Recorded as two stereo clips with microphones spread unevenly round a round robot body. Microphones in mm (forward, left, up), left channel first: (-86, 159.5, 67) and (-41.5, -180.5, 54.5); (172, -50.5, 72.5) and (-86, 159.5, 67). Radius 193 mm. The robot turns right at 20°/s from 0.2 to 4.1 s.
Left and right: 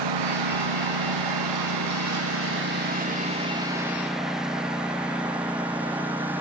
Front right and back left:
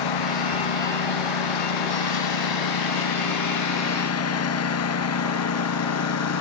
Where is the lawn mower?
65° right; by 6.4 s 5° left.